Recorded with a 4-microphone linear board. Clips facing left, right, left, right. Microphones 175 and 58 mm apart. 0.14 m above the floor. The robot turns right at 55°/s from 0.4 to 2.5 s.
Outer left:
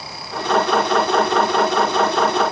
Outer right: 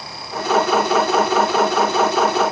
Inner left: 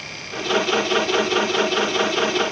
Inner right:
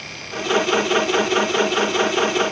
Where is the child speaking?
No child speaking in this recording.